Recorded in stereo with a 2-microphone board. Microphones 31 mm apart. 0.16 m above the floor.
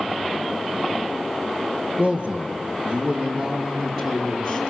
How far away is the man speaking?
About 3 m.